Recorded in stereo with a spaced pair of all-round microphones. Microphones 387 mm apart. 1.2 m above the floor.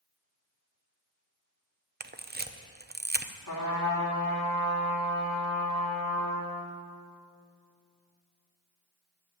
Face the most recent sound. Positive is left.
turn(degrees=65)  # may be behind; listen again after turning